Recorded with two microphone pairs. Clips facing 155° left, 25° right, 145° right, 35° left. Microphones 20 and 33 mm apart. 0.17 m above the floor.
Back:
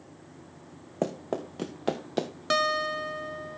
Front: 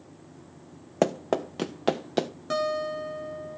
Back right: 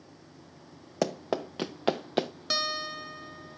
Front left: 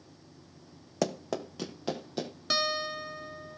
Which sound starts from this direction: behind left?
A guitar, at 2.5 s.